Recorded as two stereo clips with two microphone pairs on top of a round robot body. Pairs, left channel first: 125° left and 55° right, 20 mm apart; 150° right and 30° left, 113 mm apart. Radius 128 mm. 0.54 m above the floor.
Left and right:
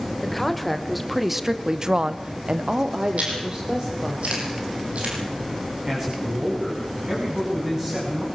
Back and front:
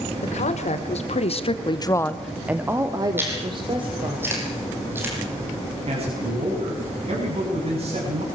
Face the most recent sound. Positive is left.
turn(degrees=10)